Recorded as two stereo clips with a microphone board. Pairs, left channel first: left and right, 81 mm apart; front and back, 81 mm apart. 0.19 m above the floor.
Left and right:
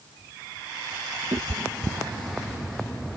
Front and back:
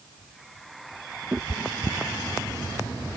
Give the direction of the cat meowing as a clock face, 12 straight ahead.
4 o'clock.